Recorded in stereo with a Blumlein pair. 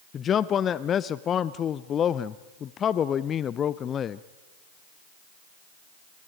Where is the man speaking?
25° left, 0.6 m.